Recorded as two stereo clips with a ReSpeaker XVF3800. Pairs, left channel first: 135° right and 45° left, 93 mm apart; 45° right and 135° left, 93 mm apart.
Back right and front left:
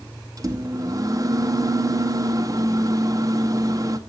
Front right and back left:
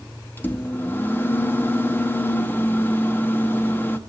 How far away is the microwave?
About 0.8 m.